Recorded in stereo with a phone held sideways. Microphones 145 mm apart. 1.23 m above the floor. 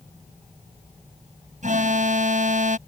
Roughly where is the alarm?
Right.